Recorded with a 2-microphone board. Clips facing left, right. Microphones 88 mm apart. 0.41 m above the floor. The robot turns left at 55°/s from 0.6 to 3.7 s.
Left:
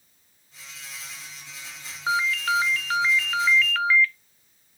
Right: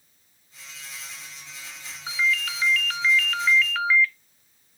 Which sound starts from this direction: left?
A ringtone, at 2.1 s.